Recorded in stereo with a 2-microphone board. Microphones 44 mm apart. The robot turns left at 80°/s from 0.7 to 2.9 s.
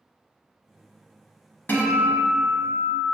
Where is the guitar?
70° left, 0.5 m; by 3.0 s 25° right, 0.5 m.